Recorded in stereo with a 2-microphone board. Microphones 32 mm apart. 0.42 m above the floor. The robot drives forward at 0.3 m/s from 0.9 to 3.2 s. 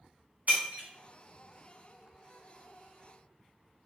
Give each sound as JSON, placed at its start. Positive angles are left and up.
{"t": 0.5, "sound": "breaking glass", "side_deg": -50, "distance_m": 2.0}